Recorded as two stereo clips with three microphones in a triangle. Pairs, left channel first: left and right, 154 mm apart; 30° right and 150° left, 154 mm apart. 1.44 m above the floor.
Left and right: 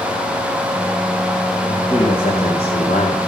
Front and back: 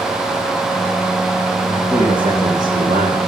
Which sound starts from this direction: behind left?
A man speaking, at 1.7 s.